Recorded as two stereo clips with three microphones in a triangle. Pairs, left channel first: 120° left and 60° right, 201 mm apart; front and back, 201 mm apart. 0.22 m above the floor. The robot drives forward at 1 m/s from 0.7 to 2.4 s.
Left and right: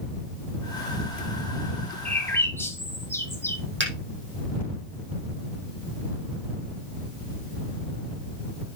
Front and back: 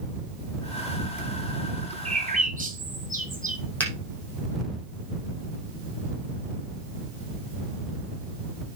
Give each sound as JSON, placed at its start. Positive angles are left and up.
{"t": 2.0, "sound": "a bird", "azimuth_deg": -160, "distance_m": 1.8}
{"t": 3.8, "sound": "a finger snap", "azimuth_deg": -80, "distance_m": 5.5}